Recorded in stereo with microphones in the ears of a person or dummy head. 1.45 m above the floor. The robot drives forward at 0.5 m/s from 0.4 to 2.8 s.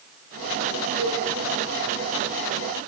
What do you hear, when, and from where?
1.0 s a cowbell: 80° right, 9.5 m; by 1.2 s 85° right, 9.5 m